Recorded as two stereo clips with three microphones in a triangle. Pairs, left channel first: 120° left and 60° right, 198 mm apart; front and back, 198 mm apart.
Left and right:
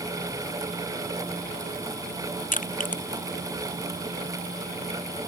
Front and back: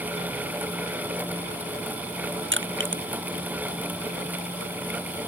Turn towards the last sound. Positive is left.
turn(degrees=170)